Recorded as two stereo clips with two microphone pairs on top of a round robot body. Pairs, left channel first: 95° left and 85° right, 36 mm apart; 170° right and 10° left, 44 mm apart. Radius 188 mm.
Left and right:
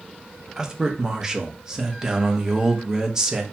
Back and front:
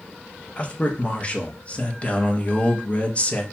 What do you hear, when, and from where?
0.6 s a man speaking: 125° right, 0.8 m